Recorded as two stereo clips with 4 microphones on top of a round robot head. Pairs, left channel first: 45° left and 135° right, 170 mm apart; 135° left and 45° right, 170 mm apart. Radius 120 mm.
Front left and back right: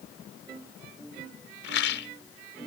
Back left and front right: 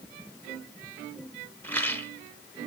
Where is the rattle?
55° left, 1.3 m.